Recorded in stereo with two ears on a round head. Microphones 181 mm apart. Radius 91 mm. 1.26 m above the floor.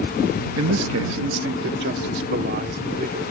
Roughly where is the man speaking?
Right.